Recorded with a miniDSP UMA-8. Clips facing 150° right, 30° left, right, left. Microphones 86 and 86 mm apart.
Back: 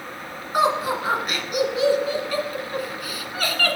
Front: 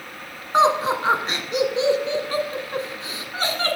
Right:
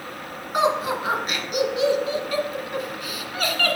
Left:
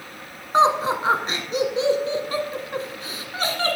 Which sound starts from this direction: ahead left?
Laughter, at 0.5 s.